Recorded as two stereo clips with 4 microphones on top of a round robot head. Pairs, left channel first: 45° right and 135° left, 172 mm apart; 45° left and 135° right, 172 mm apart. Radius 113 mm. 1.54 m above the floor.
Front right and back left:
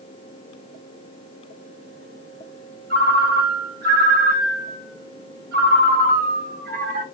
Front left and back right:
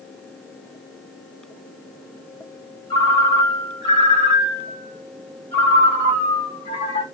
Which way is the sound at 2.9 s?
105° left.